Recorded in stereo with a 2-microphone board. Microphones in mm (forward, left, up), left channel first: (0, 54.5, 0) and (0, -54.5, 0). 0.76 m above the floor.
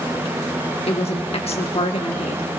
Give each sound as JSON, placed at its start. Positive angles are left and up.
{"t": 0.9, "sound": "a woman speaking", "side_deg": 65, "distance_m": 1.3}